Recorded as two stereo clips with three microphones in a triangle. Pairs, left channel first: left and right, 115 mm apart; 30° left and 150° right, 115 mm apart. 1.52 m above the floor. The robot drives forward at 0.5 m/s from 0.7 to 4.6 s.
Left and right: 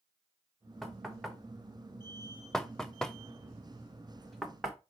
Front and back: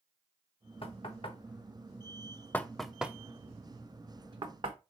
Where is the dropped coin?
No dropped coin in this recording.